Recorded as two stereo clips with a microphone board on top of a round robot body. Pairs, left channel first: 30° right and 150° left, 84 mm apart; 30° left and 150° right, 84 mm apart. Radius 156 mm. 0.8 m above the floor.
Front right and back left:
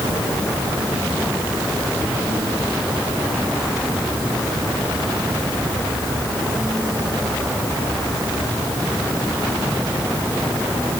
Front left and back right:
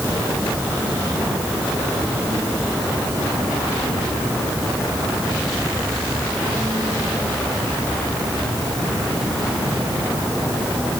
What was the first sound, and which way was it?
Only background noise.